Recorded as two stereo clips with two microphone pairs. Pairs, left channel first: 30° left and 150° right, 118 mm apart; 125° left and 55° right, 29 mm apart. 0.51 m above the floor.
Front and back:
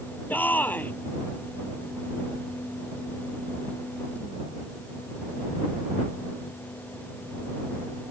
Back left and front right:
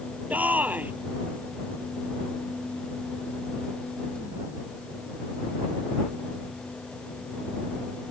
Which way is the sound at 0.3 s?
40° right.